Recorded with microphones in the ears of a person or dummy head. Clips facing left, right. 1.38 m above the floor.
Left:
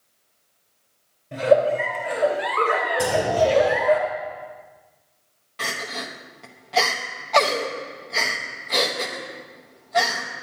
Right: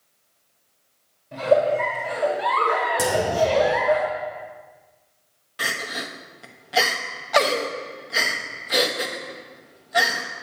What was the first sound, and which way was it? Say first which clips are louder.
A giggle: left 1 dB; 25° left (ahead or behind).